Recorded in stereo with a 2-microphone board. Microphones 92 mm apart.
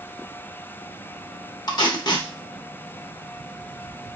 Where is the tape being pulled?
45° left (ahead or behind), 0.7 m.